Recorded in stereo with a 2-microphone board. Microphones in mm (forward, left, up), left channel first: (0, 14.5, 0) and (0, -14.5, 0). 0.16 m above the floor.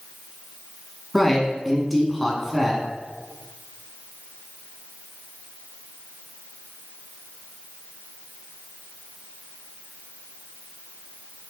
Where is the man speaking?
Centre (ahead or behind), 1.4 m.